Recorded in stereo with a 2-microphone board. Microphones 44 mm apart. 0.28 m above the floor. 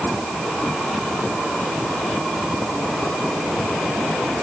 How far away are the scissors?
I don't hear scissors.